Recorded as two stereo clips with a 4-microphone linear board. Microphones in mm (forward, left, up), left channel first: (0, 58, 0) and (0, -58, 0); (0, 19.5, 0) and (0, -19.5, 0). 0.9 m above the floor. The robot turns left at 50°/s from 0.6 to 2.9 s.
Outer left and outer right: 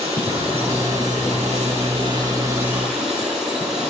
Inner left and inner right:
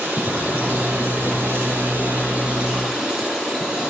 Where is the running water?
60° right, 6.5 m; by 3.9 s 175° right, 6.5 m.